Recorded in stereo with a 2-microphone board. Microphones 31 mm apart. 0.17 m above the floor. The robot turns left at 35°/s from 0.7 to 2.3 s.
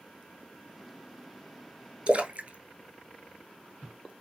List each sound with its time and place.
2.1 s a splash: 40° right (ahead or behind), 0.6 m; by 4.1 s 50° right (ahead or behind), 0.6 m